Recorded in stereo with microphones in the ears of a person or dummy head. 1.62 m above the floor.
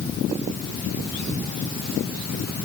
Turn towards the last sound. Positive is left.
No sound to turn to.